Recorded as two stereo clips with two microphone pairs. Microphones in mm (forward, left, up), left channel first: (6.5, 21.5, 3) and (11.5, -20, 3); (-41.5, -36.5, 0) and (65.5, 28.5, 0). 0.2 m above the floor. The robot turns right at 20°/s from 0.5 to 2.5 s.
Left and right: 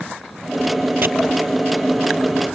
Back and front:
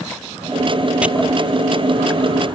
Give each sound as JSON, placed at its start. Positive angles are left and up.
{"t": 1.0, "sound": "chopping", "azimuth_deg": -50}